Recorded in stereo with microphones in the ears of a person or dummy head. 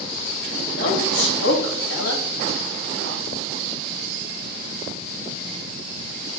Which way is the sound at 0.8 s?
75° left (ahead or behind).